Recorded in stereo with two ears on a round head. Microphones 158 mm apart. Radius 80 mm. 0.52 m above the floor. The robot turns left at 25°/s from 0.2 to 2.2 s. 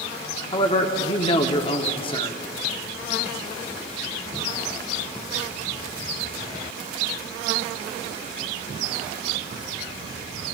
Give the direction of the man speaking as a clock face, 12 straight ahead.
8 o'clock.